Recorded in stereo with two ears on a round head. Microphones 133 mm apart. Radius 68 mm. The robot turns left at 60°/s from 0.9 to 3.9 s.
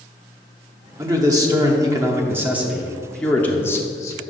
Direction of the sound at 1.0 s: 20° right (ahead or behind).